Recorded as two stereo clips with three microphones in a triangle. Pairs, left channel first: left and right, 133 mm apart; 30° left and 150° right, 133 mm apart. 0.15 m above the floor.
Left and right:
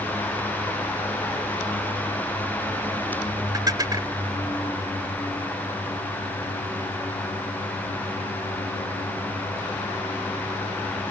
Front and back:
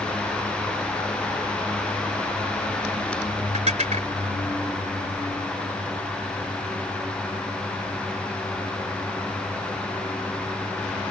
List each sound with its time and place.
3.5 s dishes clattering: 150° right